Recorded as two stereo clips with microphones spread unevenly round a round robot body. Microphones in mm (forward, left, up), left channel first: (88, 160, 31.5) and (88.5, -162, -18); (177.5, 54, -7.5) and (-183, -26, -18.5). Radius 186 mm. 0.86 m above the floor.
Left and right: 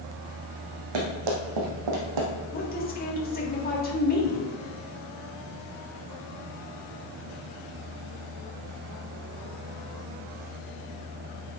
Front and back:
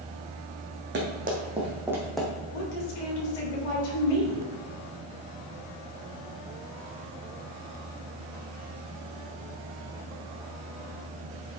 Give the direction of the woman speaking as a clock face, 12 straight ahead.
11 o'clock.